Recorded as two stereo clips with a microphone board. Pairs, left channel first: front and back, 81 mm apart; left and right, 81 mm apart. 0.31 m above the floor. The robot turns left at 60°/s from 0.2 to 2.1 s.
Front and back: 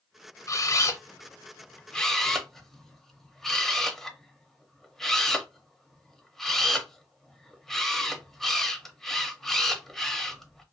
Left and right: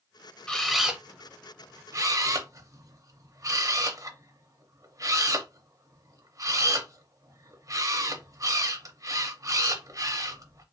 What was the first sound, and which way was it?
A camera shutter, 15° left.